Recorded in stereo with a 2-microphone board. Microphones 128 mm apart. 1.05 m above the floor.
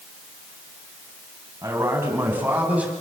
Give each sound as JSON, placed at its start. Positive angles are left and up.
{"t": 1.6, "sound": "a man speaking", "side_deg": -20, "distance_m": 8.5}